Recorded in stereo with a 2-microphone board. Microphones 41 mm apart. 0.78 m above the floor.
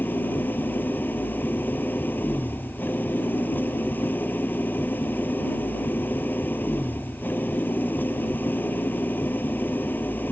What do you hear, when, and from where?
0.0 s an engine running: 50° left (ahead or behind)